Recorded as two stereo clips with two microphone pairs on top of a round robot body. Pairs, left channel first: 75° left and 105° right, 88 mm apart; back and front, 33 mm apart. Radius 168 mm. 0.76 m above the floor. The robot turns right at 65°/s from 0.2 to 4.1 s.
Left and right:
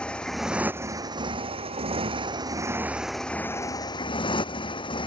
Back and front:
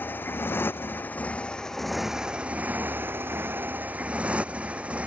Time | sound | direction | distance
0.0 | a motorcycle | 150° left | ?